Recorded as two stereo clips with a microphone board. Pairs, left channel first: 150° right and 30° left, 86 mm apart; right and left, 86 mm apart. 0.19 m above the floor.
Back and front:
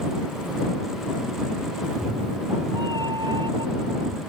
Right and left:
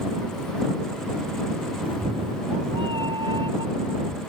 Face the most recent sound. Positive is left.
turn(degrees=60)